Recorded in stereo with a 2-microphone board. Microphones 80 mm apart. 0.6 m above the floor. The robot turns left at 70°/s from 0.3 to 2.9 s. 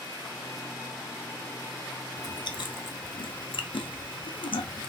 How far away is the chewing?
About 0.5 m.